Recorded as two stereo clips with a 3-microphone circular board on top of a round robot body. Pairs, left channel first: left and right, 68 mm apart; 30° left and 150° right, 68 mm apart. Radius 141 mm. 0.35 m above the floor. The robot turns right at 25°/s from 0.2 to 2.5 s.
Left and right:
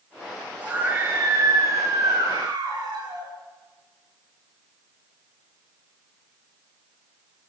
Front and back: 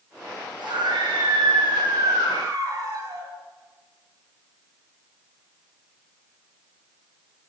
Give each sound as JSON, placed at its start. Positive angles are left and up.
{"t": 0.6, "sound": "a scream", "azimuth_deg": -160, "distance_m": 9.0}